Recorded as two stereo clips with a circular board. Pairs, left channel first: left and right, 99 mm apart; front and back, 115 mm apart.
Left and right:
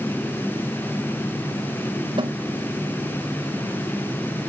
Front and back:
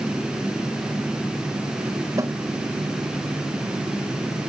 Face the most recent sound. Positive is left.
turn(degrees=-120)